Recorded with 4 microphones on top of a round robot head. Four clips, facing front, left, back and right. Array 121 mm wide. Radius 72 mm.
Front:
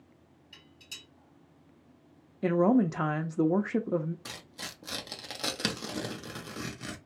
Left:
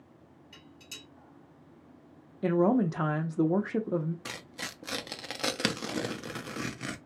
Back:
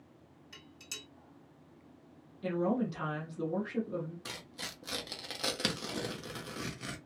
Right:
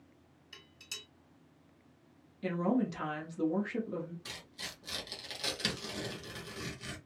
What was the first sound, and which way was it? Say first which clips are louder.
Dishes clattering: left 2 dB, back 3 dB; 135° right.